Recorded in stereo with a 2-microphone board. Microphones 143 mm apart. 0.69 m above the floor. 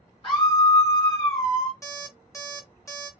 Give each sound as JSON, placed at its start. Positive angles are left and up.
{"t": 0.2, "sound": "a scream", "side_deg": 40, "distance_m": 2.0}
{"t": 1.8, "sound": "an alarm clock", "side_deg": 20, "distance_m": 1.4}